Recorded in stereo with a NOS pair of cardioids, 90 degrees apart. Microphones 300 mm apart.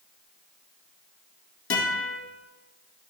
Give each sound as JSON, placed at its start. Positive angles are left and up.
{"t": 1.7, "sound": "a guitar", "azimuth_deg": 45, "distance_m": 2.5}